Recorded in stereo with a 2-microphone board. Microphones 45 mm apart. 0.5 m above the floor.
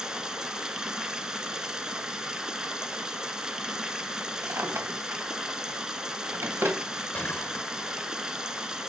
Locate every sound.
0.0 s running water: 15° right (ahead or behind), 1.2 m
4.4 s a drawer: 70° right (ahead or behind), 2 m
7.1 s a gunshot: 40° left (ahead or behind), 1.8 m